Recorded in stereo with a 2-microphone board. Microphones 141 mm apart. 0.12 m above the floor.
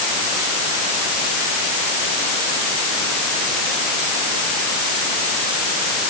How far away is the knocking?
I don't hear knocking.